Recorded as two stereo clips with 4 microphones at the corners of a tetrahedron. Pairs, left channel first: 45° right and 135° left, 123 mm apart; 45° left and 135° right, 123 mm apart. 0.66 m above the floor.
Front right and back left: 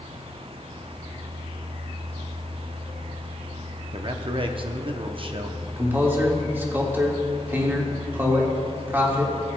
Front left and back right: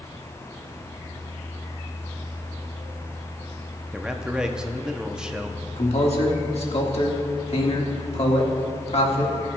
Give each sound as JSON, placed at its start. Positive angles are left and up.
{"t": 3.9, "sound": "a man speaking", "azimuth_deg": 145, "distance_m": 0.7}
{"t": 5.8, "sound": "a man speaking", "azimuth_deg": 65, "distance_m": 1.6}